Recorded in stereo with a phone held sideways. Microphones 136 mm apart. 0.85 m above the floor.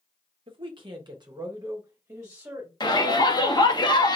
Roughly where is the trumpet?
No trumpet in this recording.